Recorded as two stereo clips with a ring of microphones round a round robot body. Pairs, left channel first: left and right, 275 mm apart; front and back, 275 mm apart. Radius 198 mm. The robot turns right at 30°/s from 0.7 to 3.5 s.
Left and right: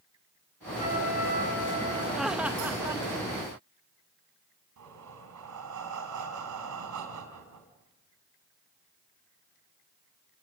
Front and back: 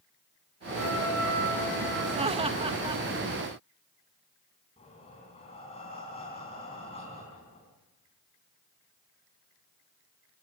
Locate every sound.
0.8 s a trumpet: 25° left, 6.5 m; by 2.0 s 60° left, 6.5 m
2.1 s laughter: 175° right, 1.0 m; by 3.0 s 150° right, 1.0 m
4.8 s breathing: 75° right, 3.5 m